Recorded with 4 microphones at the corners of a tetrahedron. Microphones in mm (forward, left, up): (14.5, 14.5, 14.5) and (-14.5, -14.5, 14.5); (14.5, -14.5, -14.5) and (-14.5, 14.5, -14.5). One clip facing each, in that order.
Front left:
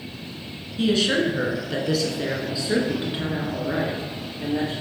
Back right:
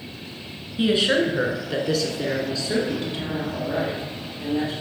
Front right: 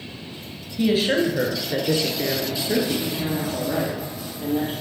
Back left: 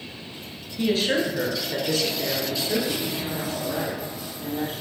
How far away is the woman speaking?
About 1.6 m.